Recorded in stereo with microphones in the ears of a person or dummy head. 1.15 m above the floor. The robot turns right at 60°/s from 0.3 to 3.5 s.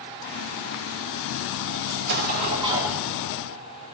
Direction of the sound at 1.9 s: 70° right.